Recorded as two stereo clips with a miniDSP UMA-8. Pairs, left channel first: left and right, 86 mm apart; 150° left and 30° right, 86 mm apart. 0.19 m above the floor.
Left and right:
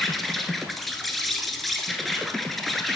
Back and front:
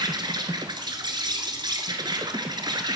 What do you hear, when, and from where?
0.0 s an insect: straight ahead, 1.0 m